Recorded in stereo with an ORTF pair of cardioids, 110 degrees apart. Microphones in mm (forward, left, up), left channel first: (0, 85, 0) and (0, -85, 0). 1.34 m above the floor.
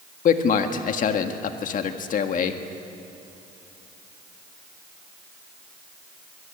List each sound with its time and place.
0.2 s a man speaking: 55° left, 1.8 m